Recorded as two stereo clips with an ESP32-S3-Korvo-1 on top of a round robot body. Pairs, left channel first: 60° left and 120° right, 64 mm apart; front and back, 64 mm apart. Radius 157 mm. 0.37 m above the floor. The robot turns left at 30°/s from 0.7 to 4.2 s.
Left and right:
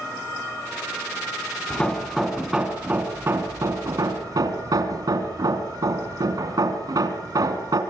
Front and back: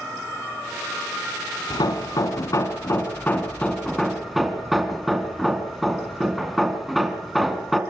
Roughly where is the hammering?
Ahead.